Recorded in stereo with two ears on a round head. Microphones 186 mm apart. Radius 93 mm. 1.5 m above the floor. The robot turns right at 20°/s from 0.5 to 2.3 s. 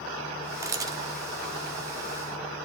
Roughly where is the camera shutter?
Centre.